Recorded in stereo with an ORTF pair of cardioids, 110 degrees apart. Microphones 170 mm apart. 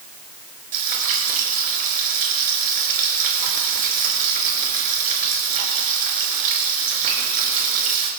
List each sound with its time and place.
0.7 s frying: 60° right, 5 m